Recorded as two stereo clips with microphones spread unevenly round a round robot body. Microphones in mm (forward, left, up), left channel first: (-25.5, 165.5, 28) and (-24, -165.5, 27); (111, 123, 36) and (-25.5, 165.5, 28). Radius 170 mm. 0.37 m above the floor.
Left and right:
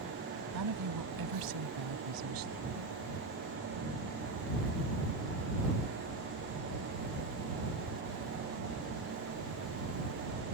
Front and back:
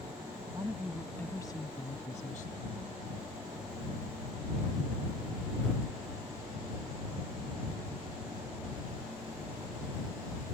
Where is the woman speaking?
120° right; by 3.0 s 55° right.